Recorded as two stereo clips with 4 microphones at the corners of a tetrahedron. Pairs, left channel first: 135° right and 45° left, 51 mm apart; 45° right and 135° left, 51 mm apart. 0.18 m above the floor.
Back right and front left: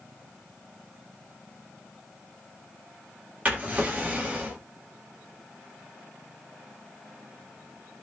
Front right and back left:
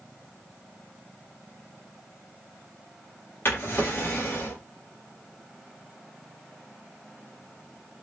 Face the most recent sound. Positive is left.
turn(degrees=-10)